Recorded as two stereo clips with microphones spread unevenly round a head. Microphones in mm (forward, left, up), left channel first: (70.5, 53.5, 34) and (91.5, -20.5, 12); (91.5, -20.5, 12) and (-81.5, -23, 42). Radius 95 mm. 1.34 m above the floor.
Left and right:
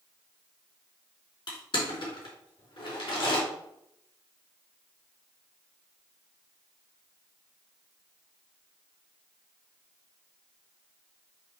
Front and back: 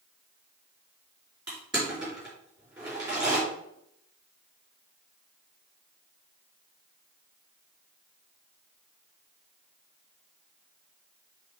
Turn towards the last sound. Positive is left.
turn(degrees=95)